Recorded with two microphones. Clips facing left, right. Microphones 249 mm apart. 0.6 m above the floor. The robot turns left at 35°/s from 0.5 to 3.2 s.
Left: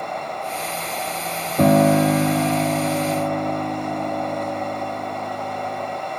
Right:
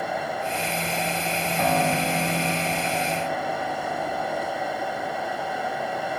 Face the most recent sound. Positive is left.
turn(degrees=65)